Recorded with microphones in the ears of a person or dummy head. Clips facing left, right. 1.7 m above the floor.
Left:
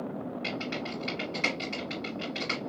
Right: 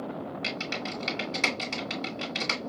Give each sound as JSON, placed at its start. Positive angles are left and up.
{"t": 0.4, "sound": "typing on a keyboard", "side_deg": -60, "distance_m": 1.9}